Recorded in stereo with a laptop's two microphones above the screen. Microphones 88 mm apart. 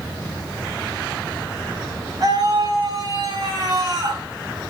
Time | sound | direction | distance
2.2 | a scream | 50° right (ahead or behind) | 8 m